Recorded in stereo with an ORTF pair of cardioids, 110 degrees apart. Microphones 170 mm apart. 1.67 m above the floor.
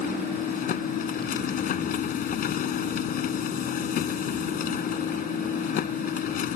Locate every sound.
0.0 s a machine running: 60° left